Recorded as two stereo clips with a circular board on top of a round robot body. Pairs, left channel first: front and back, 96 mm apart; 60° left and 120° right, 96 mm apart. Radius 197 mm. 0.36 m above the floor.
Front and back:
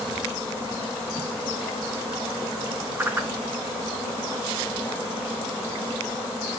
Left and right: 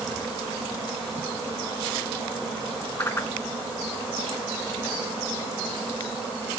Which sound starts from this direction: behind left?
A whoosh, at 3.0 s.